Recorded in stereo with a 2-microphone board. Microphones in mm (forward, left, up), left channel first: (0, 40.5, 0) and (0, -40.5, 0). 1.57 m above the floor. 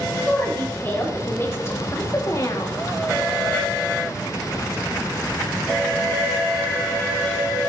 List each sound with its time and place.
0.3 s a woman speaking: 25° left (ahead or behind), 3.5 m; by 2.8 s 50° left (ahead or behind), 1.7 m